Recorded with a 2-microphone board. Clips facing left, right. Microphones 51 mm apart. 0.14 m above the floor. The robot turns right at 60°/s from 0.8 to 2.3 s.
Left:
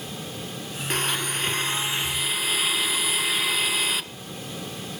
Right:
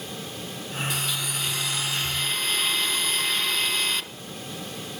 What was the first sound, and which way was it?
A blender, 85° left.